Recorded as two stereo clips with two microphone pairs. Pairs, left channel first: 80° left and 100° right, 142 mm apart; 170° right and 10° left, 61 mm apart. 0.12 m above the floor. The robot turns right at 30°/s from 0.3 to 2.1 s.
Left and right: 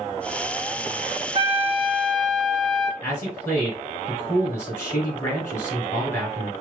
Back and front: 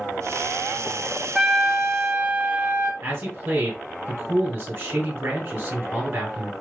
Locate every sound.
1.4 s a trumpet: 75° right, 0.7 m; by 2.9 s 55° right, 0.7 m
3.0 s a man speaking: 20° left, 1.8 m